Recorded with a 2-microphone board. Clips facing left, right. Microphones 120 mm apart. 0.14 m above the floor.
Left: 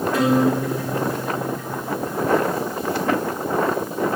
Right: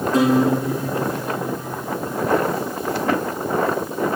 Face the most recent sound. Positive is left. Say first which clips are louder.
# right 2 dB
turn(degrees=-35)  # may be behind; listen again after turning